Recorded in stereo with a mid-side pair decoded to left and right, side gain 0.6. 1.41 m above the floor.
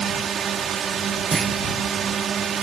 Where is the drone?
45° right.